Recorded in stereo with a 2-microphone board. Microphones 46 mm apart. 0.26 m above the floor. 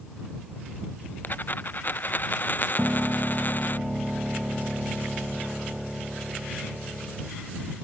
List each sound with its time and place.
1.2 s a dropped coin: 45° left (ahead or behind)
2.8 s a piano: 10° right (ahead or behind)